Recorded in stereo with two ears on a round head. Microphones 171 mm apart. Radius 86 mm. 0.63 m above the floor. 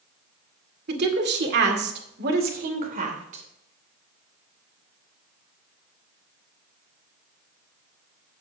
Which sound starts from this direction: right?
A woman speaking, at 0.9 s.